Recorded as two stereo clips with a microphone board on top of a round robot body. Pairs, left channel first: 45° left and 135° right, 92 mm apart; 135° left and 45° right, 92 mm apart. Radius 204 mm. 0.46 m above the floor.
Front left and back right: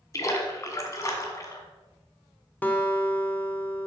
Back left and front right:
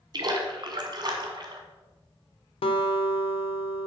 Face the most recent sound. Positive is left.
turn(degrees=120)